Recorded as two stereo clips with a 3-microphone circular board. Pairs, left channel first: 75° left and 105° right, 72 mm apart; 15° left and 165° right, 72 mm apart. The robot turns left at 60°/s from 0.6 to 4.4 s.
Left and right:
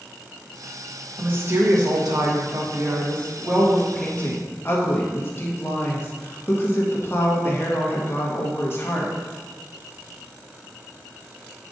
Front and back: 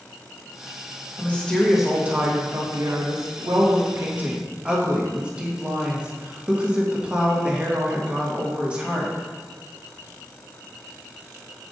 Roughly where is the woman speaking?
Ahead right.